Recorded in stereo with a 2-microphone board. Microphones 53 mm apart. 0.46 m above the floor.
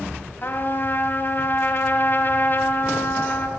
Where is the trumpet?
45° left (ahead or behind), 3.5 m.